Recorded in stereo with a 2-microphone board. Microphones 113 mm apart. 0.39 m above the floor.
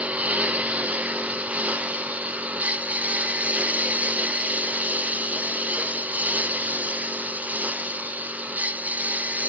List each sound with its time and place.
0.0 s a lawn mower: 10° right (ahead or behind); by 9.5 s 15° right (ahead or behind)